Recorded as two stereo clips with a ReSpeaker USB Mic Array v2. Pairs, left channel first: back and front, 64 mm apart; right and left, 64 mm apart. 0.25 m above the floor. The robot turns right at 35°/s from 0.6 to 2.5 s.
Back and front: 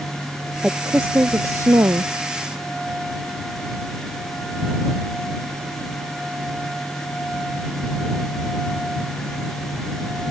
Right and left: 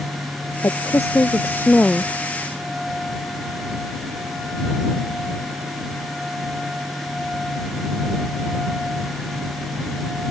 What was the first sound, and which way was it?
A woman speaking, 70° right.